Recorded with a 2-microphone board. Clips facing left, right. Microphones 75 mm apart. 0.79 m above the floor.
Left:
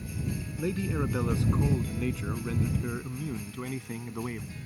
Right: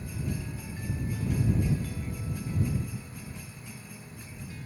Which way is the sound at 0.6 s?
80° left.